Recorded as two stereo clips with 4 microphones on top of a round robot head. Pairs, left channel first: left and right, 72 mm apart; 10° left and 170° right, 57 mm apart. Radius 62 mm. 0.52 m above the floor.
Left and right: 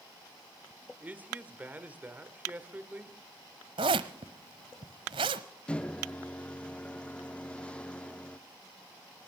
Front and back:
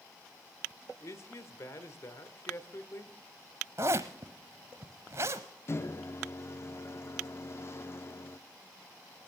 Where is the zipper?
115° right, 0.7 m.